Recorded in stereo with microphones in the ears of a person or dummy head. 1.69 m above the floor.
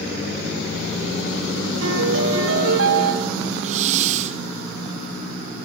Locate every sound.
1.8 s a piano: 90° right, 4 m
3.6 s a hiss: 35° right (ahead or behind), 1.0 m